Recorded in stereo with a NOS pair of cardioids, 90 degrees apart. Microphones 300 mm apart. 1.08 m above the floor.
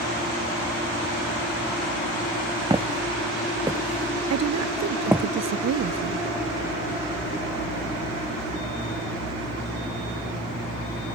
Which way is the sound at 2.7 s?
15° right.